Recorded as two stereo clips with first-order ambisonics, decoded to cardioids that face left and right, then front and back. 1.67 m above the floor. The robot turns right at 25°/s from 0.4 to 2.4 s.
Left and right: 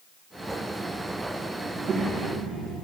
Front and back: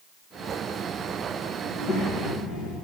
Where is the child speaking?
40° right, 1.3 m; by 2.8 s 20° right, 1.3 m.